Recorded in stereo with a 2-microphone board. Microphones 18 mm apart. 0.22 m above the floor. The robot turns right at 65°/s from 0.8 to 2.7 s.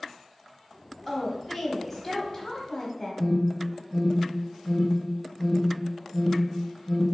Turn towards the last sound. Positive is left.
turn(degrees=-10)  # may be behind; listen again after turning